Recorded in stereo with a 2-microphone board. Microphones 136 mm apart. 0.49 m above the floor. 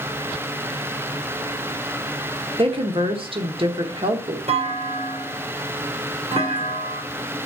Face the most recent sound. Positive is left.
turn(degrees=-45)  # may be behind; listen again after turning